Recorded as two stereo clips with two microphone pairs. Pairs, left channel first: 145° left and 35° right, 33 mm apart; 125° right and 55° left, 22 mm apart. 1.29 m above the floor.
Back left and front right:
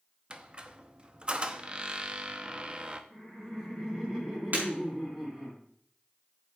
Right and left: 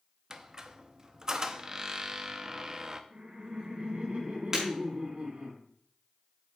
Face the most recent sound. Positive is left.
turn(degrees=-10)